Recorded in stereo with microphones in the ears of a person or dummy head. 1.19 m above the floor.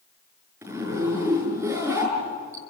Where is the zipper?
10° right (ahead or behind), 6 m.